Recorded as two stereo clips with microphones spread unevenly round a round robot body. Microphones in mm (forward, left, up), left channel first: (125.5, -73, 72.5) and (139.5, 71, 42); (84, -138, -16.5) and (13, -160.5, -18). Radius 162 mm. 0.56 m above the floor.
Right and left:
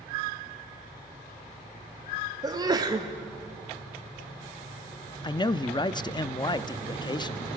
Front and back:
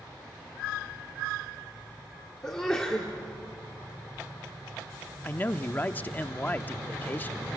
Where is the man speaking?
35° right, 0.7 m.